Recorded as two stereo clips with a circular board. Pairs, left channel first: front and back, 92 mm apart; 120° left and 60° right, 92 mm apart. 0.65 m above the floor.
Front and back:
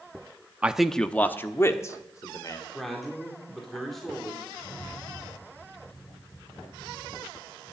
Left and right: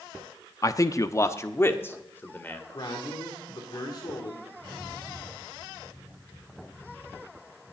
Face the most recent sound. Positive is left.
turn(degrees=50)